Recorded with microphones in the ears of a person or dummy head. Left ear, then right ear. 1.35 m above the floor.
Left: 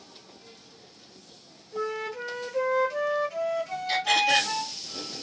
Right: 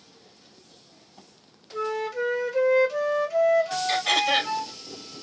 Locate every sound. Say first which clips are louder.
1.7 s a flute: right 3 dB; 80° right, 1.9 m
3.9 s throat clearing: left 2 dB; 70° right (ahead or behind), 4 m